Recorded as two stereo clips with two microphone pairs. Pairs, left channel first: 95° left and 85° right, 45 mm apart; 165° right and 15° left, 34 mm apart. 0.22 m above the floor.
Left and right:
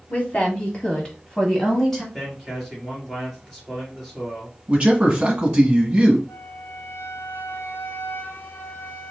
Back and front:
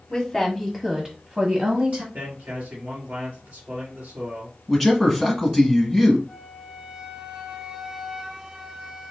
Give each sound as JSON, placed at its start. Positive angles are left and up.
{"t": 0.1, "sound": "a woman speaking", "azimuth_deg": 125, "distance_m": 1.3}
{"t": 2.1, "sound": "a man speaking", "azimuth_deg": 5, "distance_m": 3.0}
{"t": 4.7, "sound": "a man speaking", "azimuth_deg": -75, "distance_m": 1.2}
{"t": 6.3, "sound": "a flute", "azimuth_deg": 85, "distance_m": 0.8}